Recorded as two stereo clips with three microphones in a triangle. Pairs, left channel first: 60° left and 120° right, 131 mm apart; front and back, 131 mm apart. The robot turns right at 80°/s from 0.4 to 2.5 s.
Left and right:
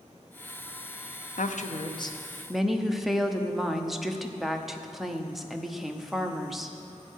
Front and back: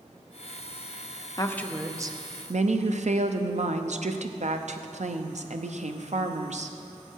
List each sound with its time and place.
1.4 s a woman speaking: 60° left, 0.8 m; by 6.8 s 150° left, 0.8 m